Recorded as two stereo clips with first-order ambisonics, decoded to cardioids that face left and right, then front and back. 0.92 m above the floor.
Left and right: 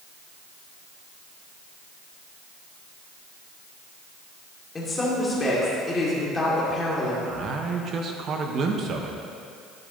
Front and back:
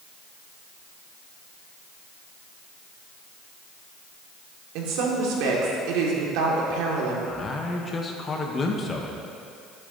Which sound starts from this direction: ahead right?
A man speaking, at 7.2 s.